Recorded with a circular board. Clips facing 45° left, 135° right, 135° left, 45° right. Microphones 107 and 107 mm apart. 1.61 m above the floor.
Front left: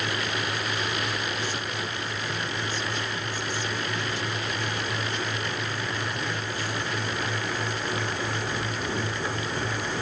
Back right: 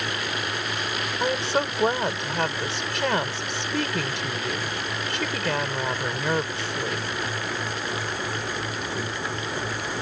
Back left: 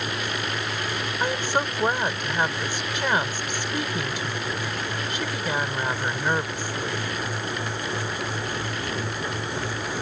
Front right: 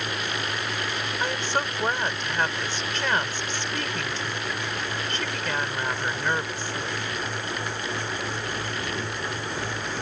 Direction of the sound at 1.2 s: 150° right.